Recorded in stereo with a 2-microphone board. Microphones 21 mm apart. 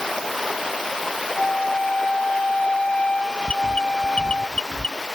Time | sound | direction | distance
1.4 | a flute | 70° left (ahead or behind) | ?
3.5 | an alarm | 55° left (ahead or behind) | ?